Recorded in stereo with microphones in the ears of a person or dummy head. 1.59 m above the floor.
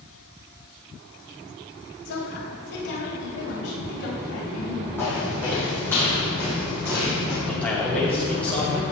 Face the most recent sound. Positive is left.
turn(degrees=5)  # may be behind; listen again after turning